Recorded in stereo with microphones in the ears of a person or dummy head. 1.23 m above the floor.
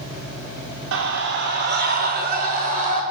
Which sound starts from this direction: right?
A scream, at 0.9 s.